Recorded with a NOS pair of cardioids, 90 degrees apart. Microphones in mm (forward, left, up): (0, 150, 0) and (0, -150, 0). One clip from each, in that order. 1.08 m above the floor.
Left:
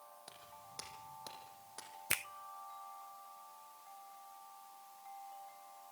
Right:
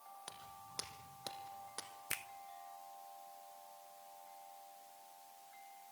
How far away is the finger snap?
About 0.5 m.